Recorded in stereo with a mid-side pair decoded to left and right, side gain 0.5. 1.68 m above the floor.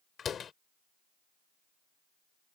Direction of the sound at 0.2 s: 45° left.